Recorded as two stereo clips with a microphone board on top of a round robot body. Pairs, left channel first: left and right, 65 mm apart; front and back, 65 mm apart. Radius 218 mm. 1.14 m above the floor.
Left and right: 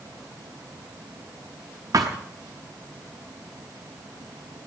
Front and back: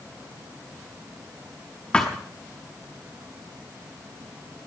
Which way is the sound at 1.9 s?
70° right.